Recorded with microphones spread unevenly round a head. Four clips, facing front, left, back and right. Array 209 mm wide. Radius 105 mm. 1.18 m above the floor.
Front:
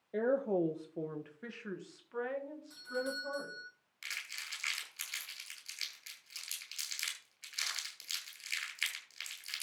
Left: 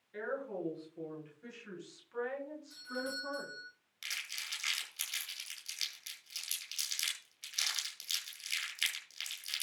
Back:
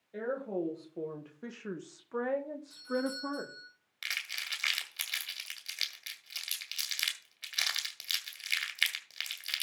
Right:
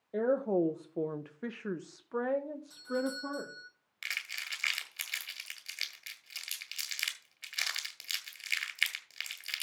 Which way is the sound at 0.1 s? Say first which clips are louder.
Right 11 dB, front 4 dB; 60° right.